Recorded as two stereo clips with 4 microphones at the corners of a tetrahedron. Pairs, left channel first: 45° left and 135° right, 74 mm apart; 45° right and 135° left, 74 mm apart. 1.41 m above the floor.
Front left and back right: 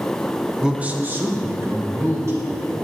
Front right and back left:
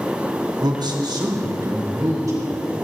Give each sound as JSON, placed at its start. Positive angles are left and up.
{"t": 0.6, "sound": "a man speaking", "azimuth_deg": 145, "distance_m": 0.9}